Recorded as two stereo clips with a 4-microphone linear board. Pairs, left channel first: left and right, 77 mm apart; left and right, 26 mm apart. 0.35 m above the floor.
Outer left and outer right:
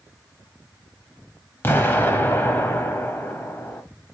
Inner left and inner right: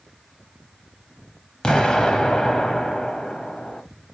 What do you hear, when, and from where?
1.6 s an explosion: 30° left (ahead or behind), 0.7 m